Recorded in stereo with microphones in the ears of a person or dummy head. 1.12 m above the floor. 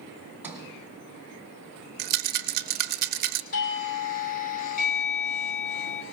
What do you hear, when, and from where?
0.4 s a sliding door: 5° right (ahead or behind), 2.5 m
2.0 s a rattle: 40° right (ahead or behind), 0.6 m
3.5 s a doorbell: 40° left (ahead or behind), 2 m